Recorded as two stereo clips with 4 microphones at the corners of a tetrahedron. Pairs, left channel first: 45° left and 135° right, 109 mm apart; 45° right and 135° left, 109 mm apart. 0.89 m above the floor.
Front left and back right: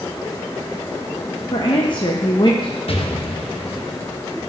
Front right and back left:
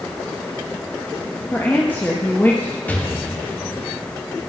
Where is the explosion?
25° left, 1.0 m.